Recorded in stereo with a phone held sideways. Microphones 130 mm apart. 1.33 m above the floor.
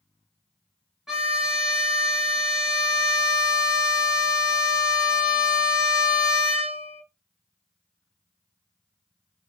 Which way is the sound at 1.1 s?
5° right (ahead or behind).